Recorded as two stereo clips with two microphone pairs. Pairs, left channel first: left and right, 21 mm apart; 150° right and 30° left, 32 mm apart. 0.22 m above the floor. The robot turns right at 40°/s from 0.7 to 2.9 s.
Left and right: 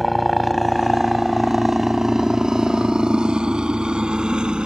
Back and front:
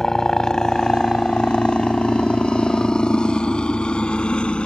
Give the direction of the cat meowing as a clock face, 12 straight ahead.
No cat meowing in this recording.